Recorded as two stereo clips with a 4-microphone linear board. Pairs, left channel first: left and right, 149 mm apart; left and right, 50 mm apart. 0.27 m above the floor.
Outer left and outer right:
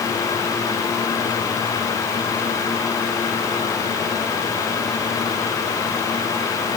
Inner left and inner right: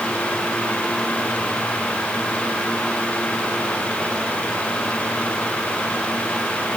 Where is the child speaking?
No child speaking in this recording.